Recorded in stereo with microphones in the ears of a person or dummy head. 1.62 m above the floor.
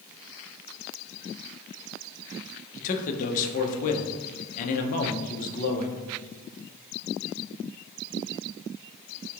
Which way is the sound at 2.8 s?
45° left (ahead or behind).